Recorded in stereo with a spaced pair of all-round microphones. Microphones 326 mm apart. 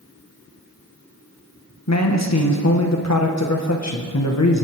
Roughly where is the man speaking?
Left.